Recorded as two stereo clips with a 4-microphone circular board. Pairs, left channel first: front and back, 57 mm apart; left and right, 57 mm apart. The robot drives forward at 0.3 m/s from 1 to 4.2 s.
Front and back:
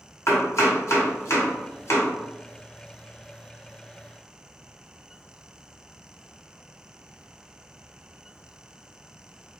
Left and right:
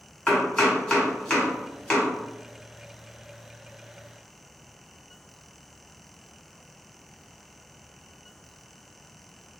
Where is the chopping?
20° left, 1.7 m; by 2.1 s 25° left, 1.5 m.